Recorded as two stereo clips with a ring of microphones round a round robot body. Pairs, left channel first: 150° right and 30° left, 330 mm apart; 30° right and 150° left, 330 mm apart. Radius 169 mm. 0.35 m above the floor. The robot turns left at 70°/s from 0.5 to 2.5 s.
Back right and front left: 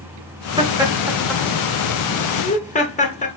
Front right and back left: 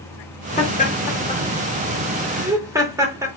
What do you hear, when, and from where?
0.6 s laughter: 10° right, 0.9 m; by 3.3 s 145° right, 0.9 m